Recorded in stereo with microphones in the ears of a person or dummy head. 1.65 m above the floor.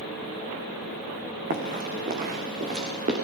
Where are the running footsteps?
45° right (ahead or behind), 4.5 m; by 3.1 s 40° right (ahead or behind), 5.5 m.